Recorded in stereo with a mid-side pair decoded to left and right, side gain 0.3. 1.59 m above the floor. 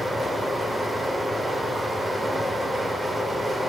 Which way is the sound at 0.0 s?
10° right.